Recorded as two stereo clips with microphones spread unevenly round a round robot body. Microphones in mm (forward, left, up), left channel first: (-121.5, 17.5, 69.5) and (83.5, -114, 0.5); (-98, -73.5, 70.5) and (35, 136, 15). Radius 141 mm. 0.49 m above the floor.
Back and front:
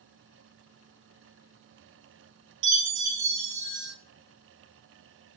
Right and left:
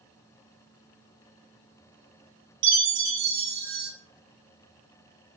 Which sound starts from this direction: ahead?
A chime, at 2.6 s.